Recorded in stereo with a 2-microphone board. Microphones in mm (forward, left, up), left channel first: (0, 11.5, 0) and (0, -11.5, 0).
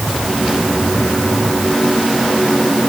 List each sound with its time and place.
Only background noise.